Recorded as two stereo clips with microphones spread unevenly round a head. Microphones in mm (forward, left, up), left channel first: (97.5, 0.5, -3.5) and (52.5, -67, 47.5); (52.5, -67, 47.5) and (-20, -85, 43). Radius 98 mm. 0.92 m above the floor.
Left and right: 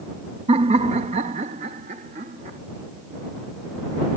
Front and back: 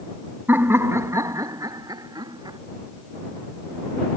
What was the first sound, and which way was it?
Laughter, 105° right.